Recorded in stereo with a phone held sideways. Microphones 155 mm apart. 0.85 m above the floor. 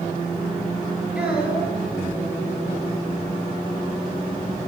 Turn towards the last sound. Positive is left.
turn(degrees=-5)  # may be behind; listen again after turning